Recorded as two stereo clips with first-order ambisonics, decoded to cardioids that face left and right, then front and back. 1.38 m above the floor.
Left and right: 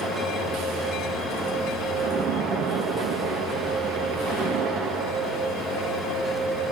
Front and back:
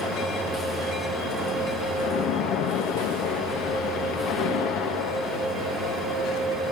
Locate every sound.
2.0 s a splash: 35° right, 1.8 m